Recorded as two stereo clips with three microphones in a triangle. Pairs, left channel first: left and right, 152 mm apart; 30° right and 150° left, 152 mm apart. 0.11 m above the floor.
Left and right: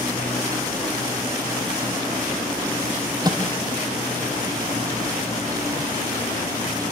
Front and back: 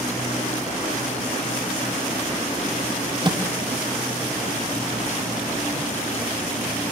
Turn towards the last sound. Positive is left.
turn(degrees=-150)